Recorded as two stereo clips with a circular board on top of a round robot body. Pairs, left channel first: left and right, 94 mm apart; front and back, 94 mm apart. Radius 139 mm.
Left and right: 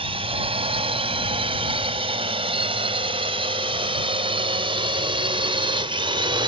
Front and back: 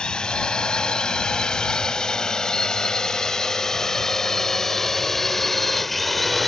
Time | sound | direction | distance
0.0 | a drone | 80° right | ?